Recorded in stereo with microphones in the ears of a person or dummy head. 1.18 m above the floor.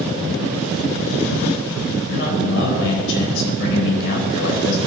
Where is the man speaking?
70° left (ahead or behind), 5 m.